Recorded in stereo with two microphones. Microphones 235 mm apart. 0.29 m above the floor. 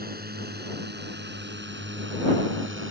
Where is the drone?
40° right (ahead or behind); by 2.9 s 55° right (ahead or behind).